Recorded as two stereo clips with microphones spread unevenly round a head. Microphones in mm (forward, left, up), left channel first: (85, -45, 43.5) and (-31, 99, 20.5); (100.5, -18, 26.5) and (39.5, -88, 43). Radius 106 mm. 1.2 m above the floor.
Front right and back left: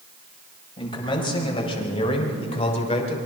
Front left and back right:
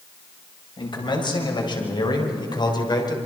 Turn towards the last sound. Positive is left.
turn(degrees=5)